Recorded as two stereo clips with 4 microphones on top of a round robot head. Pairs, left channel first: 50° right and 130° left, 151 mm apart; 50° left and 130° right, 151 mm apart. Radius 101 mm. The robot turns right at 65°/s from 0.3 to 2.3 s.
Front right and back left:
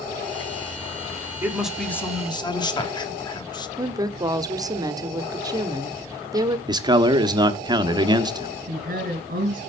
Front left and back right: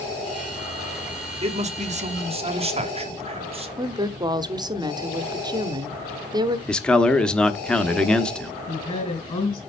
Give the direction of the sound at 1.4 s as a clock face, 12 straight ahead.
5 o'clock.